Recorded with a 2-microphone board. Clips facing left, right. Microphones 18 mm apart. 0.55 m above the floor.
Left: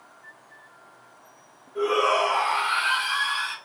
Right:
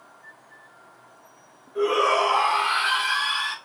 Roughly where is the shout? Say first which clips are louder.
Right 1 dB; centre.